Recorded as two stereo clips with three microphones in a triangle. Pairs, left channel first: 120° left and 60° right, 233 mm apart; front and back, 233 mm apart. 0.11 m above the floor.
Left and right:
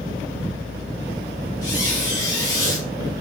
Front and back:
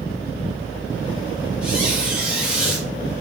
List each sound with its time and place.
1.6 s a squeak: 95° left, 1.9 m